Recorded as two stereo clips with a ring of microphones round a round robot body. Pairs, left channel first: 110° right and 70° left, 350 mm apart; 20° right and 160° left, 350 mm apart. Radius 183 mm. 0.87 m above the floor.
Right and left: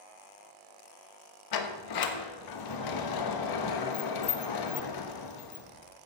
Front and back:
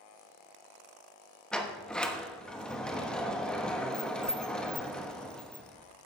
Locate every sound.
1.5 s a sliding door: 110° right, 1.2 m